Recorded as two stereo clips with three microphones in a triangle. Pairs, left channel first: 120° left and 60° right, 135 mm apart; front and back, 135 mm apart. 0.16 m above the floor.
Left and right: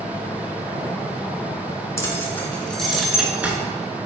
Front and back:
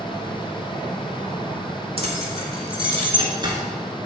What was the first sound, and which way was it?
Keys jangling, straight behind.